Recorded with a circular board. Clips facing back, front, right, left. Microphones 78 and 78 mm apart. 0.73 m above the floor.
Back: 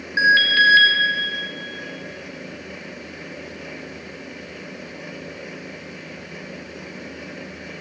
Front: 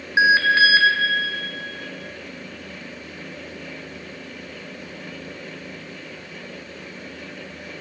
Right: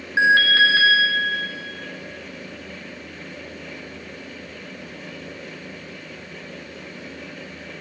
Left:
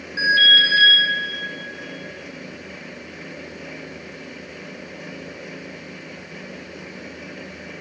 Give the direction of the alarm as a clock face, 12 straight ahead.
2 o'clock.